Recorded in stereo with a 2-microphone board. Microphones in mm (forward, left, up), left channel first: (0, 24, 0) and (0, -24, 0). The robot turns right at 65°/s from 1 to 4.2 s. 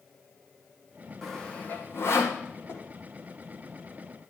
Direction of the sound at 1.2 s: 5° left (ahead or behind).